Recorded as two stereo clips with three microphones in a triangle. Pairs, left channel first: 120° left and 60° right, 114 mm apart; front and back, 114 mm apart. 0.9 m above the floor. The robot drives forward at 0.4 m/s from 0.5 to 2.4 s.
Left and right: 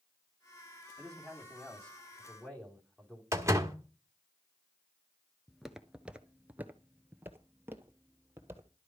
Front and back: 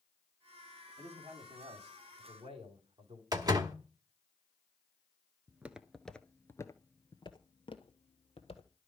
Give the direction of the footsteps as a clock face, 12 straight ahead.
5 o'clock.